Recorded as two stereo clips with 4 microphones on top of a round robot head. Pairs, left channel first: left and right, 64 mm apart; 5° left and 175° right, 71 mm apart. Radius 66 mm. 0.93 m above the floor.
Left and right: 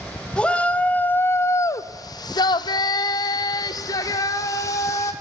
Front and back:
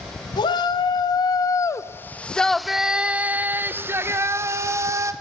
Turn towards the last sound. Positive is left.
turn(degrees=140)